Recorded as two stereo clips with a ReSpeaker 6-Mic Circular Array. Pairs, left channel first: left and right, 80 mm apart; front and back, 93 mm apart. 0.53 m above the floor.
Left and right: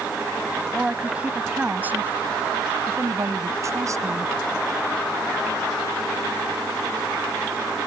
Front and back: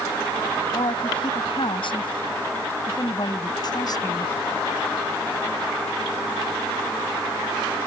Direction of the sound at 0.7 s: 10° right.